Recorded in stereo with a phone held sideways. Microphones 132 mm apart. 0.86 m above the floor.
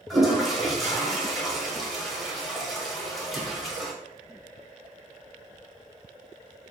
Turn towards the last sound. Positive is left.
turn(degrees=0)  # may be behind; listen again after turning